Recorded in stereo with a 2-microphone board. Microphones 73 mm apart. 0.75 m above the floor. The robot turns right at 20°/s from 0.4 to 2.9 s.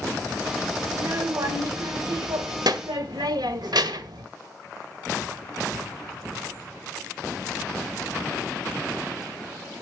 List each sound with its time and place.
0.9 s a child speaking: 150° right, 1.5 m; by 4.2 s 110° right, 1.5 m